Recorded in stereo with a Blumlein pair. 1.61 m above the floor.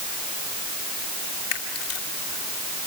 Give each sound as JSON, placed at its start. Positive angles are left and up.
{"t": 1.5, "sound": "a camera shutter", "azimuth_deg": 55, "distance_m": 2.5}